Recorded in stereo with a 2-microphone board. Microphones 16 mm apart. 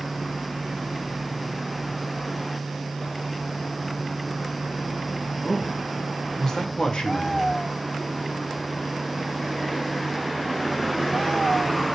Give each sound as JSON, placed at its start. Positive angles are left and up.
{"t": 5.4, "sound": "a man speaking", "side_deg": 10, "distance_m": 2.0}